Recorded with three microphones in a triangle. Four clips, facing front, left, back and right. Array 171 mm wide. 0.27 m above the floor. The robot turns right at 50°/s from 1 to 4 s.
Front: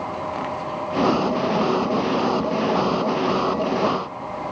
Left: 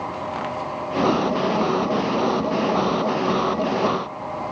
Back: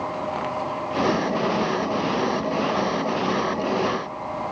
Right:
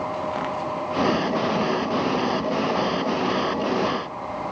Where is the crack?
I don't hear a crack.